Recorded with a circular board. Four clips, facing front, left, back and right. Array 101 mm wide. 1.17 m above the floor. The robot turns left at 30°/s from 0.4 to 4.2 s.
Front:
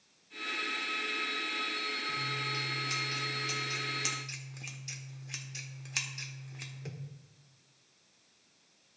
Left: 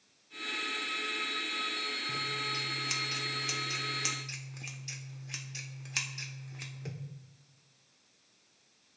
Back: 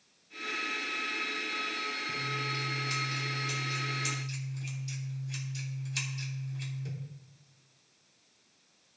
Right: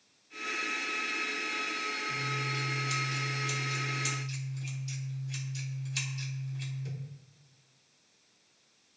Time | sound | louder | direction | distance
2.1 | scissors | even, back 1 dB | 120° left | 1.2 m